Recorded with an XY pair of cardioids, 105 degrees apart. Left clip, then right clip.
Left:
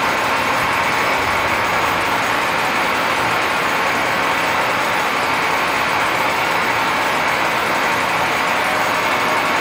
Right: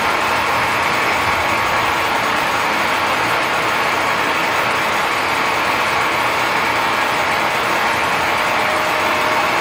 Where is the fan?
10° right, 2.5 m.